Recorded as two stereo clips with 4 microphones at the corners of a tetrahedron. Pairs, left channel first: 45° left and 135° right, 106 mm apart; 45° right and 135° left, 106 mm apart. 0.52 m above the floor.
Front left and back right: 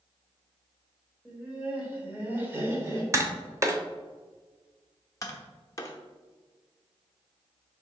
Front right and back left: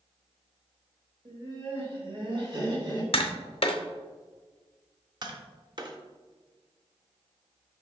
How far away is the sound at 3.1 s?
About 0.7 m.